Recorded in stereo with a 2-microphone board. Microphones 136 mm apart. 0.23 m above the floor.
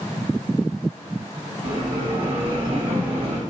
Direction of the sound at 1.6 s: 40° right (ahead or behind).